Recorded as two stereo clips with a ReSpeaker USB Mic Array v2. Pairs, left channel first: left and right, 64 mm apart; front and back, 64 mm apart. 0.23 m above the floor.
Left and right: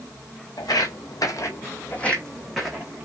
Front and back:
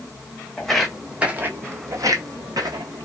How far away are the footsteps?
About 0.8 m.